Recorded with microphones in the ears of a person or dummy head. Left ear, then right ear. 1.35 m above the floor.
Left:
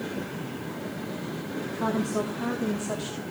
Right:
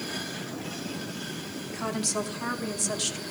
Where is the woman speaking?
65° right (ahead or behind), 2 m; by 3.2 s 80° right, 2 m.